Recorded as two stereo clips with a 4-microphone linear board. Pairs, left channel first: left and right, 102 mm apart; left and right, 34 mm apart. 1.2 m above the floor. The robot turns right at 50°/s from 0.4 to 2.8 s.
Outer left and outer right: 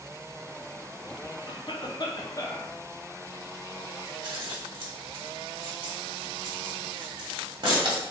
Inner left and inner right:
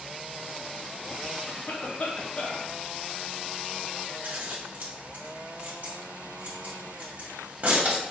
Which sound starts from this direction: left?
A cough, at 1.5 s.